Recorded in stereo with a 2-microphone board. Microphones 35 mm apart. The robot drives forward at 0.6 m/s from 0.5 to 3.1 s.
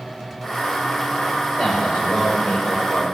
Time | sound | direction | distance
1.6 | a man speaking | 55° left (ahead or behind) | 4 m